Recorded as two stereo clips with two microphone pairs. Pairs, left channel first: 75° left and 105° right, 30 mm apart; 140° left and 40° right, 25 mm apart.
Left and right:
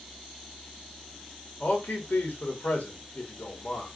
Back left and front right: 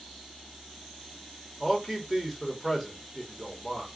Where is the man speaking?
65° left, 2.5 m.